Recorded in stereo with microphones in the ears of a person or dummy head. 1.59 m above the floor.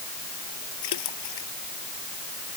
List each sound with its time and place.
0.8 s a splash: 75° left (ahead or behind)